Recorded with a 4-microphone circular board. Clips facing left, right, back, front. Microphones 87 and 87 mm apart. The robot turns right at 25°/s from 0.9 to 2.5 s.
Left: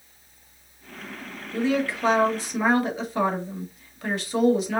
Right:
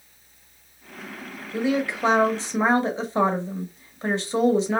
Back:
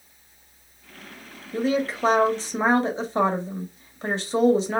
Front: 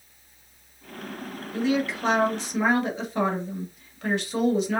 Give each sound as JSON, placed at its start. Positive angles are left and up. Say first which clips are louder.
{"t": 1.5, "sound": "a woman speaking", "louder": "even, back 1 dB", "azimuth_deg": -160, "distance_m": 1.1}